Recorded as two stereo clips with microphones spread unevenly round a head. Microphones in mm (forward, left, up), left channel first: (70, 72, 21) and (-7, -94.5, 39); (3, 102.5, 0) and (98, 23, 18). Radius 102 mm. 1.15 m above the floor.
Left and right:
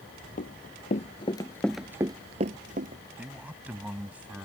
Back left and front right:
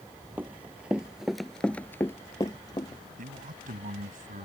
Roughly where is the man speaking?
Ahead right.